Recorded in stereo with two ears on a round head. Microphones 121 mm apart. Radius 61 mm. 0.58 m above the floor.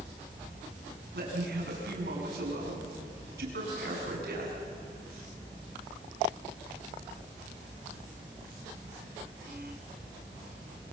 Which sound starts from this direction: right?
A man speaking, at 1.1 s.